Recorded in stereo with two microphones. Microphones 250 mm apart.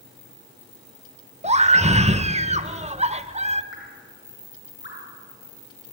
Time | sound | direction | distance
1.4 | a scream | 25° right (ahead or behind) | 1.1 m
3.7 | dripping | 50° left (ahead or behind) | 4 m